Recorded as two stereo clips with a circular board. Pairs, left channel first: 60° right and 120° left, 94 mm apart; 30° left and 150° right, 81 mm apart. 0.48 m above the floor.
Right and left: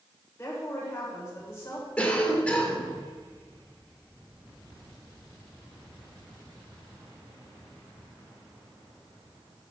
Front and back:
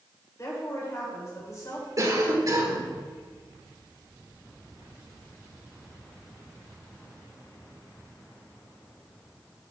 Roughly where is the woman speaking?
Ahead.